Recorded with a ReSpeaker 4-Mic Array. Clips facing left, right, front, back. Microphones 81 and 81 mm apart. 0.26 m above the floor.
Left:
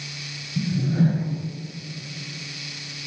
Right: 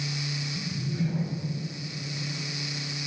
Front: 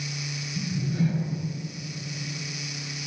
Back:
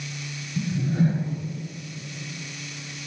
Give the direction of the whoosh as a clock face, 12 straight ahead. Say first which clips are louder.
Left 11 dB, back 4 dB; 8 o'clock.